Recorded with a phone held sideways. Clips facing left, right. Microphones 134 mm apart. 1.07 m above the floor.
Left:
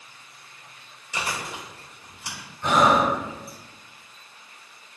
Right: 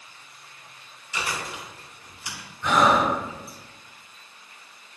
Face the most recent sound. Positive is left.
turn(degrees=65)  # may be behind; listen again after turning